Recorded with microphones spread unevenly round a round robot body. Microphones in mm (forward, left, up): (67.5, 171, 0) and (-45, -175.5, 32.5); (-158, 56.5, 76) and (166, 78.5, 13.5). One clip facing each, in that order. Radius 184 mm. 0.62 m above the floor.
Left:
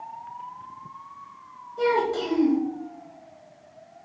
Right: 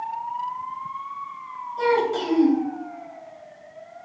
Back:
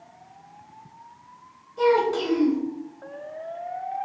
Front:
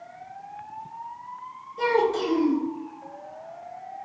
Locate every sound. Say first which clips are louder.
1.8 s a child speaking: right 2 dB, back 2 dB; straight behind, 1.8 m